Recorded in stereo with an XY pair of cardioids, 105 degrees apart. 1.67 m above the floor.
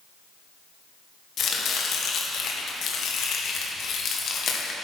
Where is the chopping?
60° left, 1.7 m.